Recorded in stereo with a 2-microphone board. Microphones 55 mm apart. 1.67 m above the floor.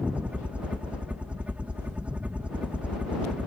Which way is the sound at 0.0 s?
20° right (ahead or behind).